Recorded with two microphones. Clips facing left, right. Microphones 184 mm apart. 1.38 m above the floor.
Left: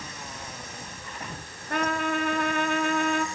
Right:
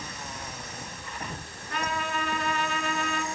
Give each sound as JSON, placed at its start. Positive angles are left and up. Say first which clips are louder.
{"t": 1.7, "sound": "a trumpet", "louder": "left 5 dB", "side_deg": 55, "distance_m": 3.0}